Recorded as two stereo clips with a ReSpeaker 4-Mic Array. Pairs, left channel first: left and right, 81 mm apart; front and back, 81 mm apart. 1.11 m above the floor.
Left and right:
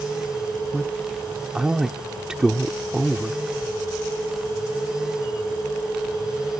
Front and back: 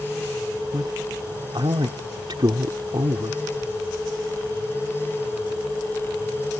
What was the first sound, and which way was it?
A man speaking, 170° right.